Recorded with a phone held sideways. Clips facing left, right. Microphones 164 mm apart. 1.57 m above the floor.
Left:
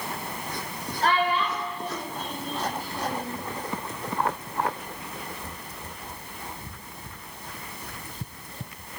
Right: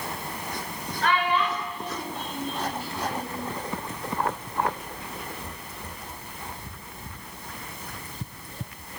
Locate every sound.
1.0 s a child speaking: 35° left (ahead or behind), 5.5 m; by 3.4 s 45° left (ahead or behind), 8.5 m